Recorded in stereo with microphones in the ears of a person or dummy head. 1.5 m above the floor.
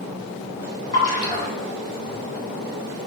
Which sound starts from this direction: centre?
A splash, at 0.9 s.